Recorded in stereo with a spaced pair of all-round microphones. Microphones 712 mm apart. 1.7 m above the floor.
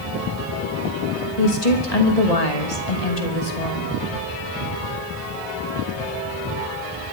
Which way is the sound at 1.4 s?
60° left (ahead or behind).